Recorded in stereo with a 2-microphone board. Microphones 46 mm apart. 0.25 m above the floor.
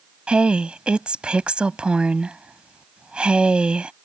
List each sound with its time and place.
0.3 s a woman speaking: 25° right (ahead or behind)